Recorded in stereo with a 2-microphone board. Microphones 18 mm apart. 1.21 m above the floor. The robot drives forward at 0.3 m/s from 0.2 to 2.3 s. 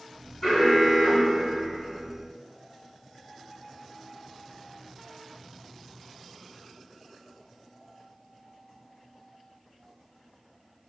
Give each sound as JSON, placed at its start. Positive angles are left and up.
{"t": 0.4, "sound": "an alarm", "side_deg": 35, "distance_m": 1.8}